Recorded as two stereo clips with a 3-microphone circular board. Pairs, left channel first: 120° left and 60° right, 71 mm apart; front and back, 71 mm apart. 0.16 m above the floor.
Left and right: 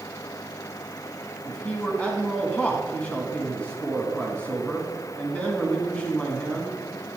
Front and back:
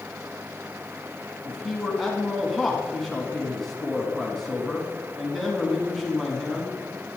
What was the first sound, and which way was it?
A man speaking, 80° left.